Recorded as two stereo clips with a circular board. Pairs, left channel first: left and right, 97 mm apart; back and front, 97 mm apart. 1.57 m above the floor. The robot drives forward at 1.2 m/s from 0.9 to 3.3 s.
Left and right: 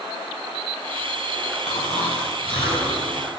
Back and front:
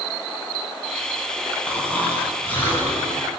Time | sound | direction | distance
1.7 | snoring | 105° left | 9.5 m